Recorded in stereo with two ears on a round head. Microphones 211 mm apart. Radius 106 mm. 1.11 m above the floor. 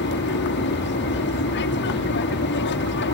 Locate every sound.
0.0 s an aircraft: 50° left (ahead or behind)